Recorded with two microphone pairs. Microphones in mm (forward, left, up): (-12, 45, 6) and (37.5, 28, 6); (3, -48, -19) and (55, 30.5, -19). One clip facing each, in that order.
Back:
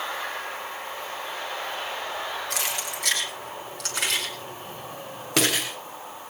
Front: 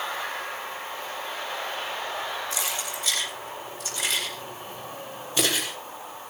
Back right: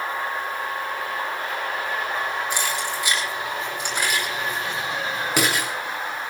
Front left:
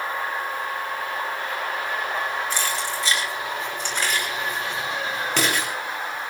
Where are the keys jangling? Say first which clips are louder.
Back 1 dB, even; 165° left, 9.5 m; by 5.7 s 150° left, 7.5 m.